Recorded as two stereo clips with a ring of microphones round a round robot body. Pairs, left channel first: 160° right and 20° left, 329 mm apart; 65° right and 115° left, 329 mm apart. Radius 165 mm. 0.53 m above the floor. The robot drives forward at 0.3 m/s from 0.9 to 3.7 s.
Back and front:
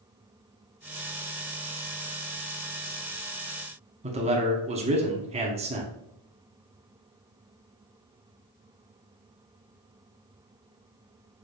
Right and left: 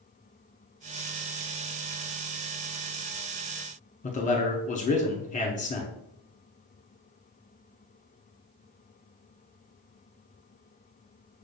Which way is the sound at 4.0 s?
25° right.